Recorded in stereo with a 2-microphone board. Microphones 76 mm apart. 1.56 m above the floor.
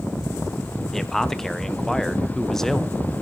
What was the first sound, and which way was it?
A man speaking, 5° left (ahead or behind).